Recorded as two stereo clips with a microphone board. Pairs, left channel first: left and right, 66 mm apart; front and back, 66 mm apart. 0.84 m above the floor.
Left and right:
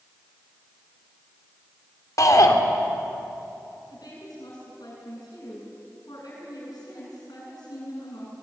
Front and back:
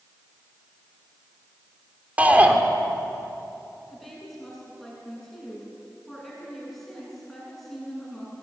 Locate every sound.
2.2 s a shout: 115° left, 3 m
3.9 s a woman speaking: 90° left, 9 m